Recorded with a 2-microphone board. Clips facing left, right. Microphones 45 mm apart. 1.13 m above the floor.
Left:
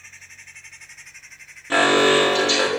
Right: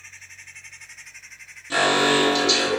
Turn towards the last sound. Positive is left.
turn(degrees=35)  # may be behind; listen again after turning